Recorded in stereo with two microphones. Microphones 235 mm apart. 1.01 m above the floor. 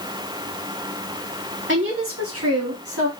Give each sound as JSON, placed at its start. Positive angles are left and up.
{"t": 1.7, "sound": "a woman speaking", "side_deg": -50, "distance_m": 2.0}